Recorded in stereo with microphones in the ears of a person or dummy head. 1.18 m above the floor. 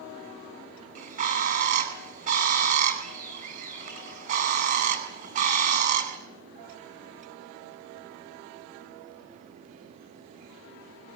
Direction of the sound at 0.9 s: 35° right (ahead or behind).